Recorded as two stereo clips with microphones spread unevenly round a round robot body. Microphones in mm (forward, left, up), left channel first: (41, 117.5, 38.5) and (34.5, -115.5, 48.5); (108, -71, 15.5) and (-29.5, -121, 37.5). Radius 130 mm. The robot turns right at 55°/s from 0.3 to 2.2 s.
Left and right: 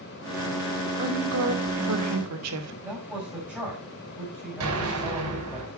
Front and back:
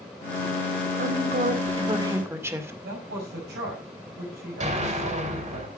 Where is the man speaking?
Straight behind, 6.5 m.